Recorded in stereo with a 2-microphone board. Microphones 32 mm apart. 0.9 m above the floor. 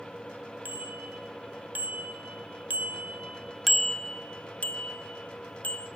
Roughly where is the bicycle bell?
Right.